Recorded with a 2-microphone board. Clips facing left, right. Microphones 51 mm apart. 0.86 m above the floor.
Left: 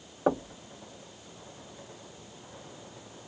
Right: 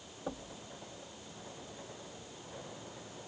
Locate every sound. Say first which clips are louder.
0.3 s knocking: left 15 dB; 75° left (ahead or behind)